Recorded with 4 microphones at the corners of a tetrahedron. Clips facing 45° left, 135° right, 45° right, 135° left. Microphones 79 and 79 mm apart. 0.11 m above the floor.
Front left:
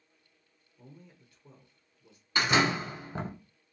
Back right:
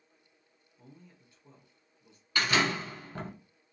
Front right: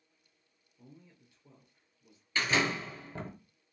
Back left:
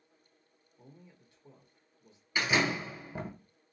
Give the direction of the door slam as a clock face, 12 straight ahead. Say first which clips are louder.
Front left 2 dB, back left 1 dB; 9 o'clock.